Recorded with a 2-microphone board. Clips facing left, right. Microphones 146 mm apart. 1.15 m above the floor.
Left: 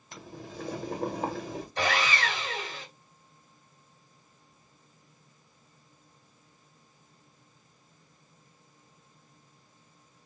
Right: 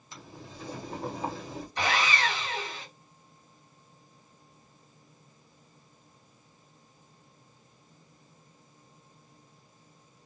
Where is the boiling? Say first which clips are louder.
Left 4 dB; 60° left (ahead or behind), 1.3 m.